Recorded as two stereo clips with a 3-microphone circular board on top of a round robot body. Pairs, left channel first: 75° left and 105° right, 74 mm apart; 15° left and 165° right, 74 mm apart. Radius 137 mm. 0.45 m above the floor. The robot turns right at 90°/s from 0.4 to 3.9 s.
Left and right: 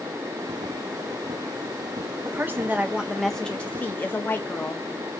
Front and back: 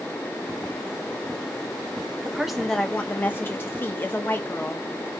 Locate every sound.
2.2 s a woman speaking: 105° right, 0.8 m; by 4.8 s 45° left, 0.8 m